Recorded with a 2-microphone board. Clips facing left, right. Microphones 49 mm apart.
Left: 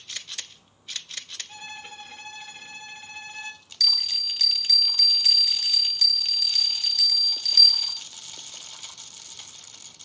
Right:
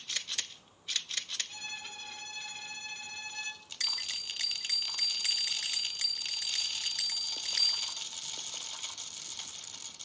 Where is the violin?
30° left (ahead or behind), 1.8 m.